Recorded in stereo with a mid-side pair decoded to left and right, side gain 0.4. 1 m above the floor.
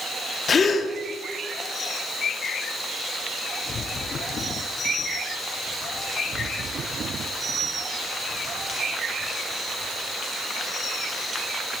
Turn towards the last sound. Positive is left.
turn(degrees=50)